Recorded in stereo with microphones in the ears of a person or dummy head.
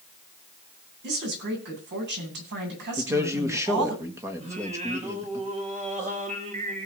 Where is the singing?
40° right (ahead or behind), 3 m.